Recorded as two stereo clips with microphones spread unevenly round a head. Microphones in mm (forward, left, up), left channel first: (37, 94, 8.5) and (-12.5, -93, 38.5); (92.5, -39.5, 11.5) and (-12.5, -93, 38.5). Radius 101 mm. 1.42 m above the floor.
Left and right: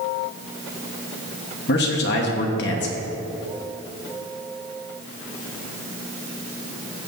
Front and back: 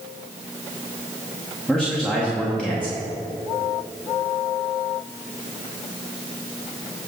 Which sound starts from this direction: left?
A man speaking, at 1.7 s.